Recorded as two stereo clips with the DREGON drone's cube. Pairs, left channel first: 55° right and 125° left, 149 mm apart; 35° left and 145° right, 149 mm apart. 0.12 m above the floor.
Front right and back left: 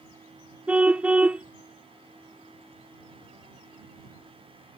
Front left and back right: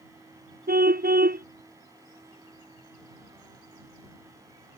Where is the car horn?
155° right.